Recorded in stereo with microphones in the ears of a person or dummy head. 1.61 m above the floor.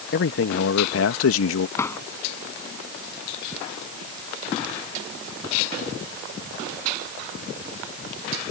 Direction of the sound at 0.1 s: 50° left (ahead or behind).